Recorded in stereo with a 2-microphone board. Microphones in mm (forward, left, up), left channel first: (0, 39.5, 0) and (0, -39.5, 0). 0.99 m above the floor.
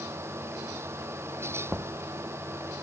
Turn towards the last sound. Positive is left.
turn(degrees=-20)  # may be behind; listen again after turning